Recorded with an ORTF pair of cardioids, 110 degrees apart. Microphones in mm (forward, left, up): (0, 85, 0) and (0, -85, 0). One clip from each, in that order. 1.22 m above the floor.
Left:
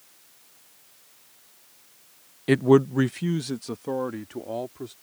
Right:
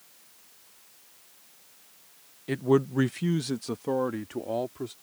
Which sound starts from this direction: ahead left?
A man speaking, at 2.5 s.